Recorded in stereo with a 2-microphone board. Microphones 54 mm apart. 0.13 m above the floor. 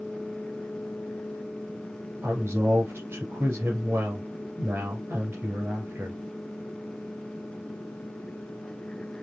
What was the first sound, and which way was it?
A woman speaking, 45° right (ahead or behind).